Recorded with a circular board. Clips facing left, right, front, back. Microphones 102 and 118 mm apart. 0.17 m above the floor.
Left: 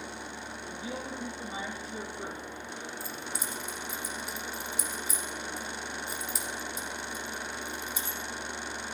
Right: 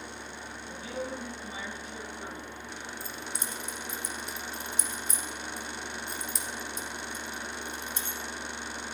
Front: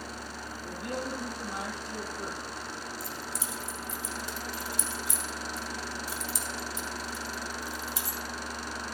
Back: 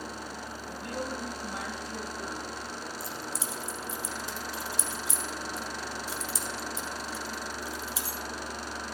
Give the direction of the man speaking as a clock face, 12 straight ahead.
11 o'clock.